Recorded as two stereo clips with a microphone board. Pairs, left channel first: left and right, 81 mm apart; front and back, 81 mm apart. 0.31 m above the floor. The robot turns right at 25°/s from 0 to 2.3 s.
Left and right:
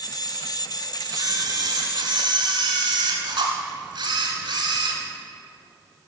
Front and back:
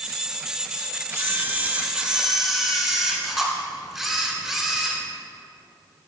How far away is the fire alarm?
No fire alarm in this recording.